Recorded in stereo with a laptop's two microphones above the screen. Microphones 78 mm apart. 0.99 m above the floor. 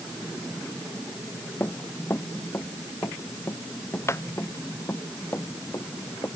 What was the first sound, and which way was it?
Running footsteps, 30° left (ahead or behind).